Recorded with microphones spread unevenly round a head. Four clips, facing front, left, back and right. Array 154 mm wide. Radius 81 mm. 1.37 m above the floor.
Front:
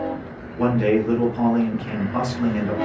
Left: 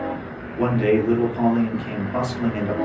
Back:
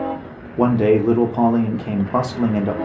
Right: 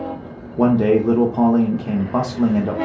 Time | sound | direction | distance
0.6 | a man speaking | 145° right | 0.8 m